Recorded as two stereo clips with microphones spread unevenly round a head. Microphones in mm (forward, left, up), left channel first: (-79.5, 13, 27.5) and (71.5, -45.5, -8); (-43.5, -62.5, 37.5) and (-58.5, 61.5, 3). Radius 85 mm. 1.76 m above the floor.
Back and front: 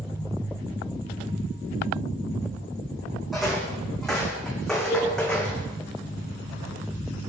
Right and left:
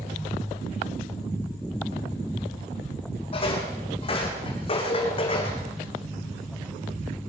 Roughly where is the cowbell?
Behind right.